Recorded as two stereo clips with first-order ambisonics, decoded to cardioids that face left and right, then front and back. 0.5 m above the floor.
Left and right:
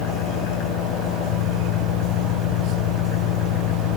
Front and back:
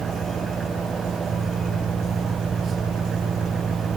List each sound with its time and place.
0.0 s an engine running: 110° left